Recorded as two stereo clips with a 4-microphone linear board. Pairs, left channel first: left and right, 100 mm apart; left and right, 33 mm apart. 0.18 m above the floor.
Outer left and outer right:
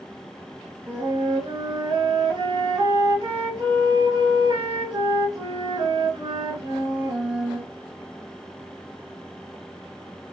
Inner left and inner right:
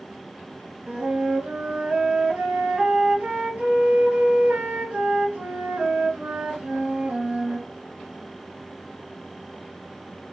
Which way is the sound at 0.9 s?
45° right (ahead or behind).